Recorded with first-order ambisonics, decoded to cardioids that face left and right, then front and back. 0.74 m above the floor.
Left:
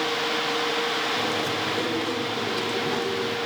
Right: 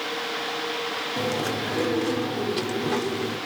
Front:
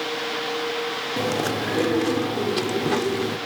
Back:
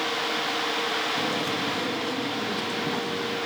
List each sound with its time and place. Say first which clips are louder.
1.2 s chewing: left 1 dB, front 2 dB; 10° right, 1.1 m